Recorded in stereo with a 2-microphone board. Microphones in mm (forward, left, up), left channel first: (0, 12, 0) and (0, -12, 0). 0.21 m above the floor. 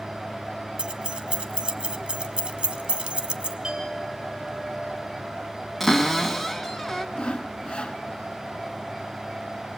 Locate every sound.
0.8 s keys jangling: 45° right (ahead or behind), 0.9 m
3.6 s a clink: 35° right (ahead or behind), 4 m
5.8 s a cupboard door: 5° left (ahead or behind), 1.6 m
7.2 s sawing: 45° left (ahead or behind), 1.1 m